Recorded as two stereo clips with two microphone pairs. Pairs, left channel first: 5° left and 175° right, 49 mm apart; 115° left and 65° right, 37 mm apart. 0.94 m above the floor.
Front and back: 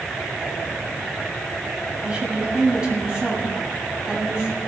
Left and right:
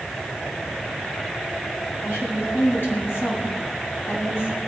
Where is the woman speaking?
115° left, 6 m.